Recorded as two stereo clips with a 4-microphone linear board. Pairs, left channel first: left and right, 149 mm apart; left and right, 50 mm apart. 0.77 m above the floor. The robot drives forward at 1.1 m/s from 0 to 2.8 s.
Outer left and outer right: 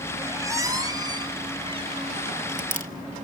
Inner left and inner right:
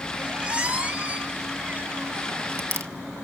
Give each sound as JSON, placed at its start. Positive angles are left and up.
{"t": 0.2, "sound": "a squeak", "side_deg": -20, "distance_m": 3.0}